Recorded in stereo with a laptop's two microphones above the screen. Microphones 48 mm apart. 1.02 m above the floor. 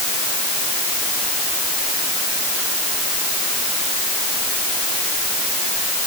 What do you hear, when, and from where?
Only background noise.